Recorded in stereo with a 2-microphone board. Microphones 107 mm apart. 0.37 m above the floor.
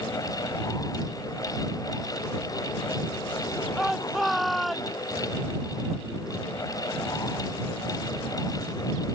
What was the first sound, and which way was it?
A shout, centre (ahead or behind).